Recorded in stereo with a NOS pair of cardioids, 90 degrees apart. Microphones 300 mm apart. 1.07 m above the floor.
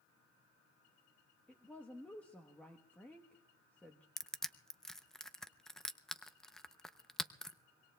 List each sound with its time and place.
1.5 s a woman speaking: 5° left, 1.1 m
4.2 s crushing: straight ahead, 0.6 m